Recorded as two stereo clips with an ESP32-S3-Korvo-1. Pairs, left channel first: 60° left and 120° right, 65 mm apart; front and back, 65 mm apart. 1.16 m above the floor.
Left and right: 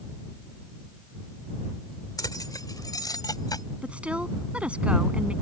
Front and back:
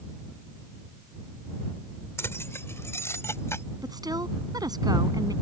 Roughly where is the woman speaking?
Behind.